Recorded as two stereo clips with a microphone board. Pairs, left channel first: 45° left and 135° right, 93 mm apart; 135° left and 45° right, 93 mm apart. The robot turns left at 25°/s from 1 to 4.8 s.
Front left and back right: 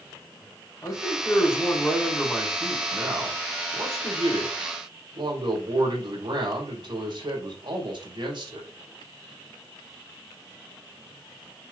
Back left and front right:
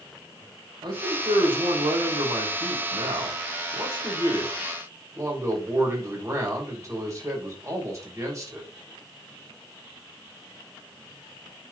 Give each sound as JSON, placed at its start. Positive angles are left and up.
{"t": 0.8, "sound": "a man speaking", "azimuth_deg": -5, "distance_m": 3.5}